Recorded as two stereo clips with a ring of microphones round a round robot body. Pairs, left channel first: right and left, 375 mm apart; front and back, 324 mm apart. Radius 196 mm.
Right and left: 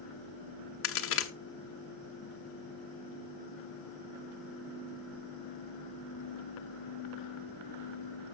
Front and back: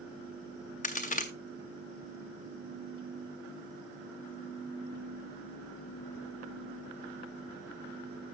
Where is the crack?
55° right, 1.2 m.